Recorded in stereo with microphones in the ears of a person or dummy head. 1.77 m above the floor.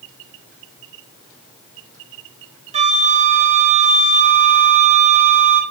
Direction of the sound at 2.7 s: 35° right (ahead or behind).